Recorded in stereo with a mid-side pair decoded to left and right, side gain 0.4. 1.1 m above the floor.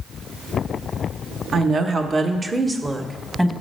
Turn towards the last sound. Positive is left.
turn(degrees=-15)